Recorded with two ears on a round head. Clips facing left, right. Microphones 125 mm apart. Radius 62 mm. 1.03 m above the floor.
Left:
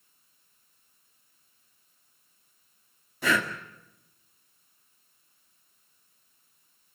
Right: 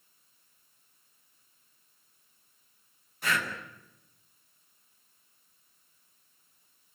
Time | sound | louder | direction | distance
3.2 | breathing | left 5 dB | 70° left (ahead or behind) | 2 m